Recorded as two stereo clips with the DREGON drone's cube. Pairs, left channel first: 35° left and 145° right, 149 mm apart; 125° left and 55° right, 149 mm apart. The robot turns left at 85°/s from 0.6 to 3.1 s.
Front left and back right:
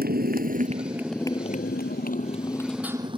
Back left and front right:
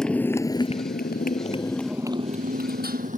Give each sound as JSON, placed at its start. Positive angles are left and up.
{"t": 0.0, "sound": "a motorcycle", "azimuth_deg": -150}